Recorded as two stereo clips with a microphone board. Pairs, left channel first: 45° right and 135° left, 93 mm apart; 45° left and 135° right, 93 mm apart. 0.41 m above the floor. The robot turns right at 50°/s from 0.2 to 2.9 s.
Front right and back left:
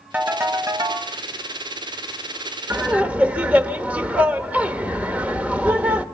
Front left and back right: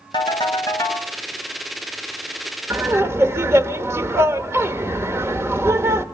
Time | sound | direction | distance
0.1 | a ringtone | 65° left | 2 m
2.7 | laughter | 170° right | 0.9 m